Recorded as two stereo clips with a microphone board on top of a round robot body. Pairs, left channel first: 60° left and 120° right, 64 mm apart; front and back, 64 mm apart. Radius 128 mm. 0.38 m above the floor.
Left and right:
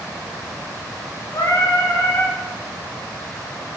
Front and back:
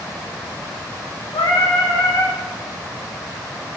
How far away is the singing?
About 1.1 m.